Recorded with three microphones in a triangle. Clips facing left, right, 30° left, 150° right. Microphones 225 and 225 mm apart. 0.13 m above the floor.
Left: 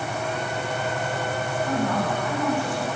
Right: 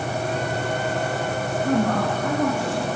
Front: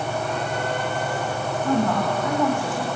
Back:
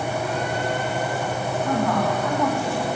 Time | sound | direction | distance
1.6 | a woman speaking | 40° right | 9 m